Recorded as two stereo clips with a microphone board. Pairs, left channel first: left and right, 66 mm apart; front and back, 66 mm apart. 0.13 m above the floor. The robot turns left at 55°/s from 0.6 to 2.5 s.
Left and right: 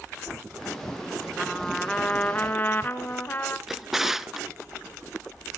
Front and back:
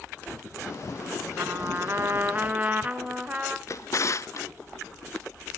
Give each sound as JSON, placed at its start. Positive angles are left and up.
{"t": 1.4, "sound": "a trumpet", "azimuth_deg": -170, "distance_m": 1.0}
{"t": 3.7, "sound": "a drawer", "azimuth_deg": -5, "distance_m": 0.5}